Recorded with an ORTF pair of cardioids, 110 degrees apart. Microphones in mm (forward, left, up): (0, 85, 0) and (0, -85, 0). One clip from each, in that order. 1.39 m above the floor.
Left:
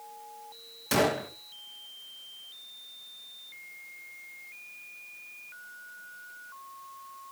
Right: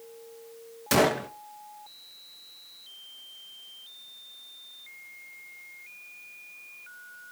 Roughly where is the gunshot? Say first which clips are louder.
Right 3 dB; ahead right.